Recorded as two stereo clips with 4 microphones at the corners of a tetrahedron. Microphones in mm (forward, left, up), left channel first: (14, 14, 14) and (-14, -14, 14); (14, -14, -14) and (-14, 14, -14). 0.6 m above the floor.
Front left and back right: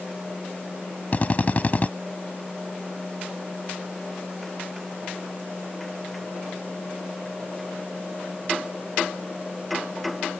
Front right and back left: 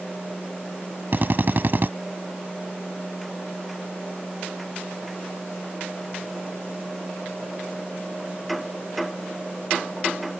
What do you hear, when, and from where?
1.1 s a drill: 95° left